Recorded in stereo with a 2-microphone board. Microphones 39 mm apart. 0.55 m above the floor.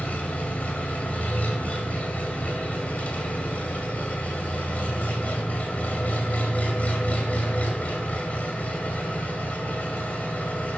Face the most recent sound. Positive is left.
turn(degrees=40)  # may be behind; listen again after turning